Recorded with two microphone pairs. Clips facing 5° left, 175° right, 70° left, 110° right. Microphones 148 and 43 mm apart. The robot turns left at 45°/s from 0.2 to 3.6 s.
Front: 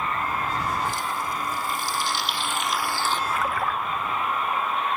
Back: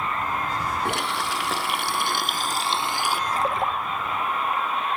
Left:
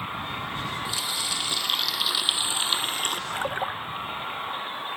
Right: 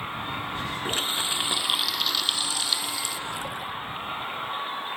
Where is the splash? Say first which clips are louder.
Back 2 dB, left 4 dB; 130° left; by 3.8 s 120° left.